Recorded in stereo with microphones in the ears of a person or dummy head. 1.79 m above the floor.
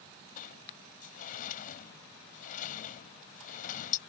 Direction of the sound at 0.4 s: 45° left (ahead or behind).